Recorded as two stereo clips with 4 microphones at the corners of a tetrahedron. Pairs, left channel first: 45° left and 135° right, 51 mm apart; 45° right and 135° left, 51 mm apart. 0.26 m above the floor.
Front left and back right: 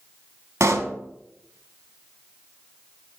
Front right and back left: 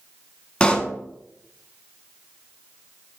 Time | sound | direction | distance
0.6 | a pop | 115° right | 0.6 m